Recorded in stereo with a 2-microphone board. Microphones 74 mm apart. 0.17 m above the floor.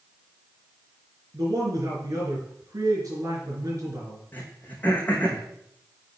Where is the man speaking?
50° right (ahead or behind), 3.5 m.